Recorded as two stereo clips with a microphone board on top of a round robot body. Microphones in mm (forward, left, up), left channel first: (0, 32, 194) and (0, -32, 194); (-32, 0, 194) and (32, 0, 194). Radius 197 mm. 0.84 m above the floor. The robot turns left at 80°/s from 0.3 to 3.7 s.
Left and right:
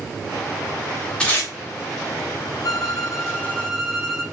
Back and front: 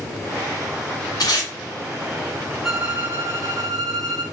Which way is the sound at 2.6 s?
85° left.